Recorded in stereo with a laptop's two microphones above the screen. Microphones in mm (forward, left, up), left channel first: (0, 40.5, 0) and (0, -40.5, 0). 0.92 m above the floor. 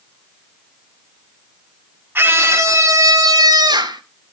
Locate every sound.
2.1 s a scream: 25° right (ahead or behind), 1.9 m; by 4.0 s 60° right (ahead or behind), 2 m